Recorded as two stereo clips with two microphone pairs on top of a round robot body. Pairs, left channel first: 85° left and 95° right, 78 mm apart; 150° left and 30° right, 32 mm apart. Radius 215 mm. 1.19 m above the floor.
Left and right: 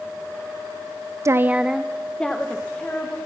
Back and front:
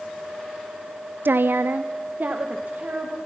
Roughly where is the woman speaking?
Ahead right.